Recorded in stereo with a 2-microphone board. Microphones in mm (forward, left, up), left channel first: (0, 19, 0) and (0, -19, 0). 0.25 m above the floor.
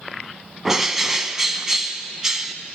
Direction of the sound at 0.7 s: 10° right (ahead or behind).